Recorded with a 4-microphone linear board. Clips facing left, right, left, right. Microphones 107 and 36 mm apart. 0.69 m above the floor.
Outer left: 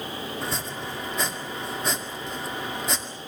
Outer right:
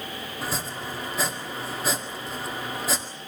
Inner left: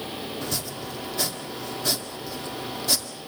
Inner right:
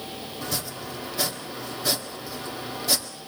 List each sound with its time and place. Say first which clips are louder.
0.4 s chopping: even, inner left 1 dB; 5° right (ahead or behind), 1.9 m